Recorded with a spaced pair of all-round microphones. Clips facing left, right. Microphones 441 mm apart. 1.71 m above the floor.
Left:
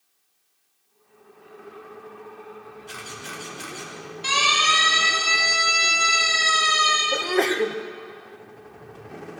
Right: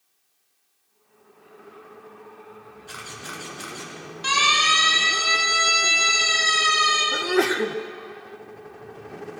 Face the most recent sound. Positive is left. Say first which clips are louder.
# right 1 dB
turn(degrees=-25)  # may be behind; listen again after turning